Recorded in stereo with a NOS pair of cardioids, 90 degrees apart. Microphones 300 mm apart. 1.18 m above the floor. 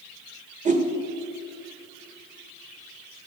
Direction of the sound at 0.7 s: 25° right.